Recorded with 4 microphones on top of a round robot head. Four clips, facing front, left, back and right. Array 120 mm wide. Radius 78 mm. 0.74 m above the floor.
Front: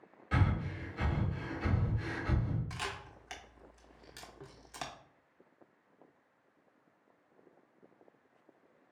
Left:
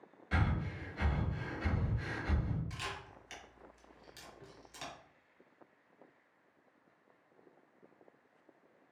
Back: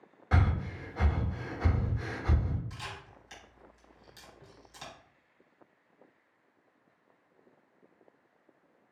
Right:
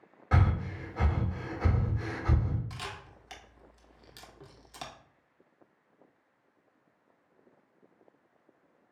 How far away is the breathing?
About 0.7 m.